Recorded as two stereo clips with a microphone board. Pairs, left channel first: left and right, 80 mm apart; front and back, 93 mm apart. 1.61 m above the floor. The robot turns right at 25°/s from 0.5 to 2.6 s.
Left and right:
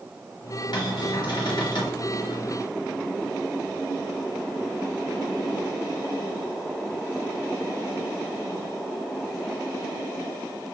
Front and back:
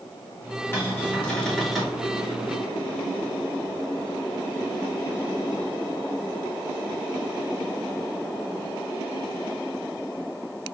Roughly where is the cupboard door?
Ahead left.